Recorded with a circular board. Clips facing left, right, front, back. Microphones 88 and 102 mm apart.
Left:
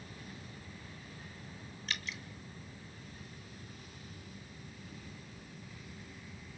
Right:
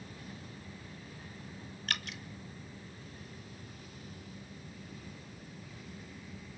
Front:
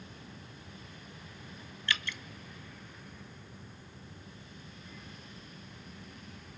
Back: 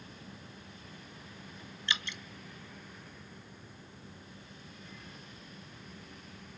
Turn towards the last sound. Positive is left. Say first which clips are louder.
# right 2 dB, front 2 dB
turn(degrees=-110)